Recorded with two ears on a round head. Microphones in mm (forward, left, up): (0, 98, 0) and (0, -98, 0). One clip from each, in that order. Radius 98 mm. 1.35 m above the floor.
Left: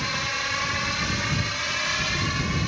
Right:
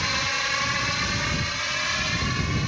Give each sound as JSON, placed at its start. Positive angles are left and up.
{"t": 0.0, "sound": "a drone", "side_deg": -15}